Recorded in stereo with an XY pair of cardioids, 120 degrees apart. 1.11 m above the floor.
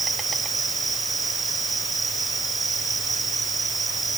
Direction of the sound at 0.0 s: 25° right.